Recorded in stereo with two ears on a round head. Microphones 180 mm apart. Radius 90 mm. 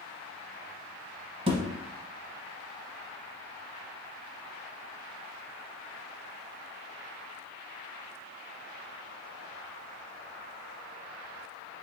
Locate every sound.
1.5 s a thud: 30° right (ahead or behind), 0.8 m